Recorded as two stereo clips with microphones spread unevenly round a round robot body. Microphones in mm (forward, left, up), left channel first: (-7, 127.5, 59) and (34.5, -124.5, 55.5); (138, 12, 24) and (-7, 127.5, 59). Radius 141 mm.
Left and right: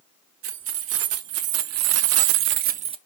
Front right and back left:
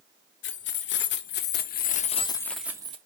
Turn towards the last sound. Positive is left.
turn(degrees=-150)